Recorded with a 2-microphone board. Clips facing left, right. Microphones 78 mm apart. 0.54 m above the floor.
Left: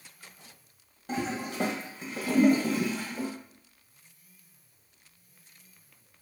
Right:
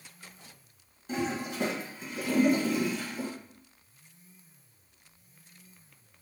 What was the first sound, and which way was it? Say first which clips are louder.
A toilet flushing: even; 65° left (ahead or behind).